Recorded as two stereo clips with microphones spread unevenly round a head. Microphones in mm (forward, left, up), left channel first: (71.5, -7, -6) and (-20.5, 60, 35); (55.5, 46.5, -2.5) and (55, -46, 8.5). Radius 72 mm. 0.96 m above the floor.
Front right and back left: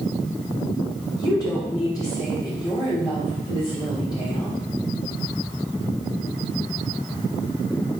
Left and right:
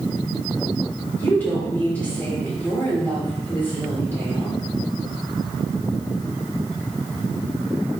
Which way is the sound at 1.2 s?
20° left.